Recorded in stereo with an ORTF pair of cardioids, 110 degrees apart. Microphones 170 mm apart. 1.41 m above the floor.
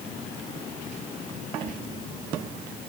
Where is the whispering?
55° right, 3 m.